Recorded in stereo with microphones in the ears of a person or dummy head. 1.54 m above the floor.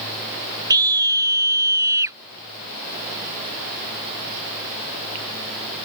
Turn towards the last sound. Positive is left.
turn(degrees=-15)  # may be behind; listen again after turning